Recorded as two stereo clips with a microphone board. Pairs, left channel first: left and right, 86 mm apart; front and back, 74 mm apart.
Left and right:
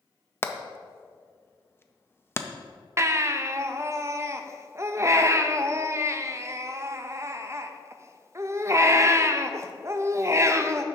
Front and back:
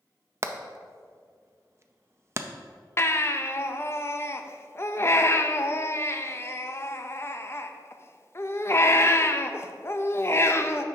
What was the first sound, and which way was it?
Hammering, 140° left.